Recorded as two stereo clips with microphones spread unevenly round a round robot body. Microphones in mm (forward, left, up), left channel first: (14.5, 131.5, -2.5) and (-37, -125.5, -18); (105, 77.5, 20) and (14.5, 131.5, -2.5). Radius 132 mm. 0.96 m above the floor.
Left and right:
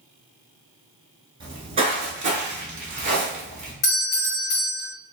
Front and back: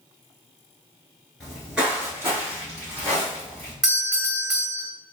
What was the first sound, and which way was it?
Footsteps, 55° right.